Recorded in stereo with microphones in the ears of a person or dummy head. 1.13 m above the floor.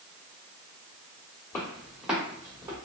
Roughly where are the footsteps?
Centre.